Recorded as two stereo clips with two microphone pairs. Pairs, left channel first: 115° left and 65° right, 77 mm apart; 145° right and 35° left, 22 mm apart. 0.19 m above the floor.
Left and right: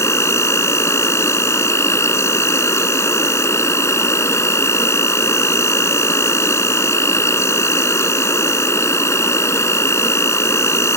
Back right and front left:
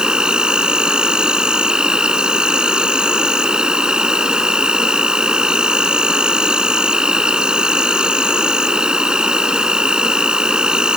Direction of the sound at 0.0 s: 80° left.